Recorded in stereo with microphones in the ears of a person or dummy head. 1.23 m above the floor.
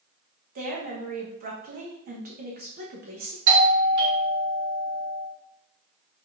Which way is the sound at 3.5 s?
60° right (ahead or behind).